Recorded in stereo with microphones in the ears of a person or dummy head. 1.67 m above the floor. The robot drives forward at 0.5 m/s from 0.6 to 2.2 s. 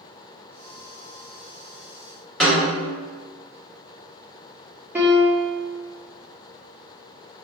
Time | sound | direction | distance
2.4 | a snare drum | 5° left (ahead or behind) | 1.1 m
5.0 | a piano | 5° right (ahead or behind) | 0.9 m